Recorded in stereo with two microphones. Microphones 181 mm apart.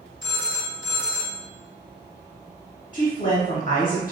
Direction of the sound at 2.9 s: 50° left (ahead or behind).